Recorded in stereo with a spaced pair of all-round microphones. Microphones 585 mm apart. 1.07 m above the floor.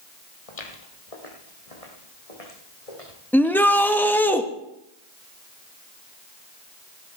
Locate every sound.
0.5 s footsteps: 65° left (ahead or behind), 2.5 m
3.3 s a shout: 5° left (ahead or behind), 1.3 m